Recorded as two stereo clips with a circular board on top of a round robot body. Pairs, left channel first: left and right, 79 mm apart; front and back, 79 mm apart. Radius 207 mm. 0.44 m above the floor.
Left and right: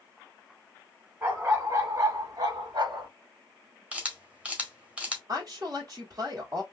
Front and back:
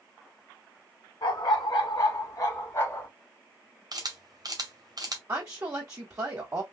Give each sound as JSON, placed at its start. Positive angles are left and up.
{"t": 1.2, "sound": "a dog barking", "azimuth_deg": -20, "distance_m": 1.5}
{"t": 3.9, "sound": "a camera shutter", "azimuth_deg": -160, "distance_m": 2.0}
{"t": 5.3, "sound": "a woman speaking", "azimuth_deg": -130, "distance_m": 2.0}